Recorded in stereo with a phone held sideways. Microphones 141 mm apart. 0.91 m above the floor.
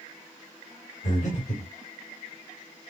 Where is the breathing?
55° left (ahead or behind), 2.5 m.